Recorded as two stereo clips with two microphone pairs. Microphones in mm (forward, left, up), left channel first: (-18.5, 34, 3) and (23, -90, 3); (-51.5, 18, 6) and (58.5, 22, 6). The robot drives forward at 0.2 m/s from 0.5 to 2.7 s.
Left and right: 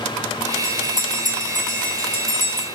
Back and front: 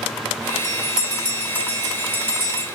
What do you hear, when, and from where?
0.6 s a bell: 100° left, 2 m; by 2.6 s 110° left, 2 m